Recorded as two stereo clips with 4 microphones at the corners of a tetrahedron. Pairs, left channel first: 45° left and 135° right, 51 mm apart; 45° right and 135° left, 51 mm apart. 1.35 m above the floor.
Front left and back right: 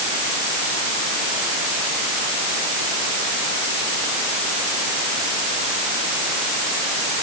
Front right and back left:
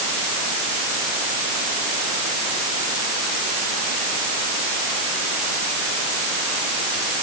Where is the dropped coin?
No dropped coin in this recording.